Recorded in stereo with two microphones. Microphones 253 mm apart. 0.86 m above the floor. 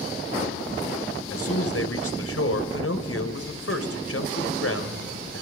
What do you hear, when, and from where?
1.3 s a man speaking: 65° left (ahead or behind), 3 m